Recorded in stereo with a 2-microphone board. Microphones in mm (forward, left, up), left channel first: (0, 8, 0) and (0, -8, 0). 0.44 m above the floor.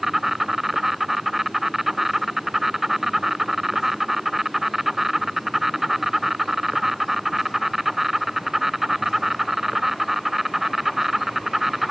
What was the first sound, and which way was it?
An insect, 20° right (ahead or behind).